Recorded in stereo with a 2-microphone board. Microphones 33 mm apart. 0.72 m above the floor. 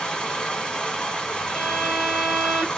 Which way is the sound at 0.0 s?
20° left (ahead or behind).